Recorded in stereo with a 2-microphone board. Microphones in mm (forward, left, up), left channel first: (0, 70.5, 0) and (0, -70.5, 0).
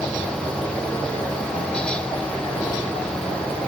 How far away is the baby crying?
No baby crying in this recording.